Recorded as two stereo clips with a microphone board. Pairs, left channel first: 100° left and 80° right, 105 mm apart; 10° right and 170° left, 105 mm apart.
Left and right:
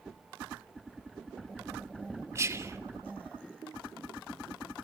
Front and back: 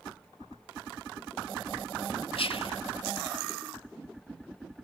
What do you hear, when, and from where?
2.4 s whispering: 20° right, 1.6 m